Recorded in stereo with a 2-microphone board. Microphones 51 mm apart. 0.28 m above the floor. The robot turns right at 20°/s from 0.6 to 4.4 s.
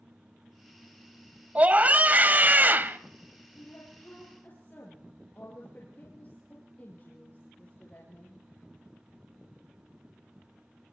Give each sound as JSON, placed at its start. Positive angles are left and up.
{"t": 1.6, "sound": "a scream", "side_deg": -30, "distance_m": 1.1}
{"t": 3.5, "sound": "a woman speaking", "side_deg": 50, "distance_m": 5.0}